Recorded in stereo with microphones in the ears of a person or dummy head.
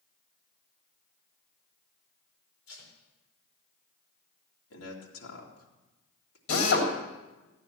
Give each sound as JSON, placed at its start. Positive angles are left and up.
{"t": 2.7, "sound": "tape being pulled", "side_deg": 80, "distance_m": 4.0}
{"t": 4.7, "sound": "a man speaking", "side_deg": 80, "distance_m": 3.0}
{"t": 6.5, "sound": "a drill", "side_deg": 80, "distance_m": 3.0}